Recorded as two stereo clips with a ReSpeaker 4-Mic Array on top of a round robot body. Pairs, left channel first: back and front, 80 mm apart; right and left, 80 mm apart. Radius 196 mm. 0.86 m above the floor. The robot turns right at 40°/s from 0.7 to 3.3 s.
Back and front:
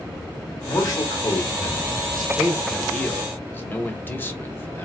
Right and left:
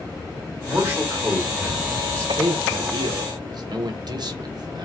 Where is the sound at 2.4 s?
80° left, 0.8 m; by 4.9 s 115° left, 0.8 m.